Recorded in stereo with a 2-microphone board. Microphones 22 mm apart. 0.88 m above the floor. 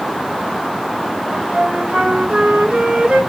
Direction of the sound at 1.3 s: 65° right (ahead or behind).